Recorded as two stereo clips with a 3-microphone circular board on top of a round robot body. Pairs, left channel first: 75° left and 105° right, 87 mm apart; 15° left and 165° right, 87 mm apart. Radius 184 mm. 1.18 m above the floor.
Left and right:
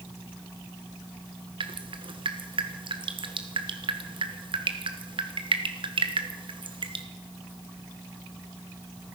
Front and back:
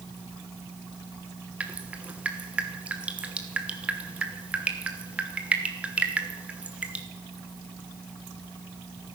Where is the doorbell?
I don't hear a doorbell.